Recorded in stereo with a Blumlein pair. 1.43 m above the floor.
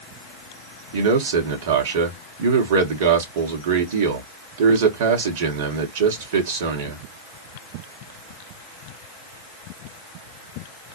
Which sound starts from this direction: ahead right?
A man speaking, at 0.9 s.